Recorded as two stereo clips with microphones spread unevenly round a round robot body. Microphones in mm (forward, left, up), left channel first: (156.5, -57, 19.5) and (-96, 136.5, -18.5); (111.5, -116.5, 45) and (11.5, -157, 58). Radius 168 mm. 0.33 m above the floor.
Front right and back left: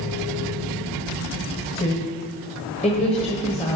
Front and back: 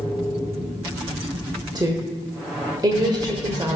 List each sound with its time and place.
1.8 s a woman speaking: 110° right, 1.4 m